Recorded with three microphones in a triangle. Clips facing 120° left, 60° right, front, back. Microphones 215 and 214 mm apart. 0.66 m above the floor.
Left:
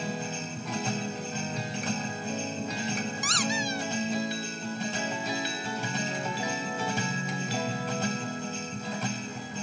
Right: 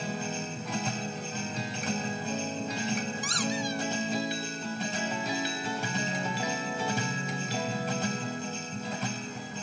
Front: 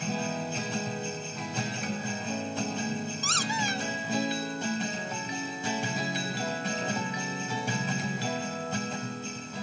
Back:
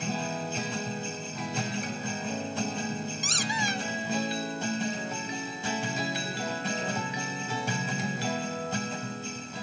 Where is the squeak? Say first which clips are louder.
Even, even; 105° left, 0.6 m.